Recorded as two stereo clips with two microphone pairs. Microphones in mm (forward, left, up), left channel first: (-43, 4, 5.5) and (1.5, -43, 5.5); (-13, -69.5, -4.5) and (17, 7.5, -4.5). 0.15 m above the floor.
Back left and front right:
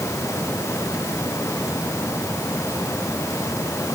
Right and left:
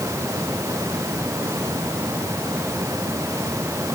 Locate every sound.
Only background noise.